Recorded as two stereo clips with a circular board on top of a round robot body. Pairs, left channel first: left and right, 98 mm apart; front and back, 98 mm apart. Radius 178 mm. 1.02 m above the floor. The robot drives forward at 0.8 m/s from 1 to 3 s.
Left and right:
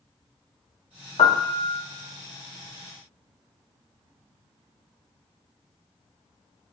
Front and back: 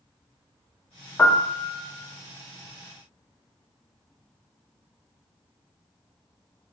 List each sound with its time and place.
1.2 s a piano: 65° left, 1.9 m; by 1.8 s 80° left, 1.7 m